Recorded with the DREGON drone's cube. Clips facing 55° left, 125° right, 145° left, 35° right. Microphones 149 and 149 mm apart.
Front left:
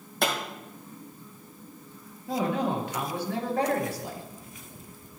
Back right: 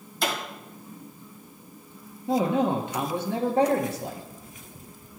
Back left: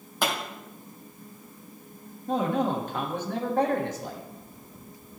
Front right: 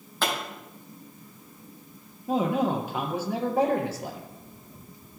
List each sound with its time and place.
0.2 s a pop: 70° left, 2.5 m
2.3 s a man speaking: 105° right, 1.4 m